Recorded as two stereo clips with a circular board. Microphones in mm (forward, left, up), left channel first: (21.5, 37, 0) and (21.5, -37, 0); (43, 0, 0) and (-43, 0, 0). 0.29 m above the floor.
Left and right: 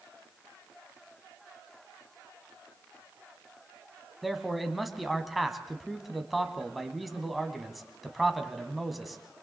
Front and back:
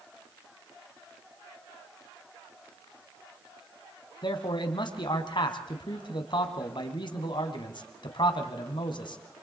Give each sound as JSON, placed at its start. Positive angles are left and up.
{"t": 4.2, "sound": "a man speaking", "azimuth_deg": 0, "distance_m": 1.9}